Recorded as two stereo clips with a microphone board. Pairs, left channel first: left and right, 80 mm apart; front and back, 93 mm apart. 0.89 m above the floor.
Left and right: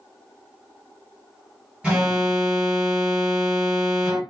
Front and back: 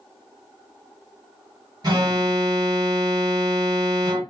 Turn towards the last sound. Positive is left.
turn(degrees=-165)